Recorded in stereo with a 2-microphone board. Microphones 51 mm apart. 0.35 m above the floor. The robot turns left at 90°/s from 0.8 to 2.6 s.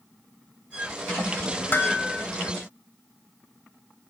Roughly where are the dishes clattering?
Ahead left.